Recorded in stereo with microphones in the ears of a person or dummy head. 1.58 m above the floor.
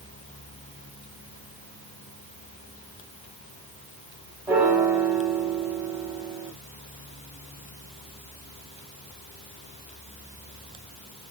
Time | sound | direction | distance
4.5 | a piano | 10° right (ahead or behind) | 0.9 m